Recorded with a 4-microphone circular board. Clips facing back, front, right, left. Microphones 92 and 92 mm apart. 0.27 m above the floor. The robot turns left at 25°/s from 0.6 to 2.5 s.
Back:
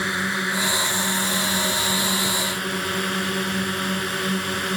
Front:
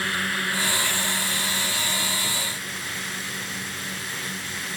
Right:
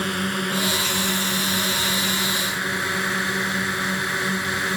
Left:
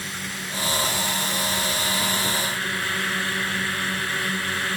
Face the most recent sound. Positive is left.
turn(degrees=-160)